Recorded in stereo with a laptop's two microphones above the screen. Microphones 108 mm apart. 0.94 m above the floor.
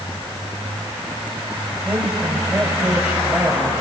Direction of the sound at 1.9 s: 15° right (ahead or behind).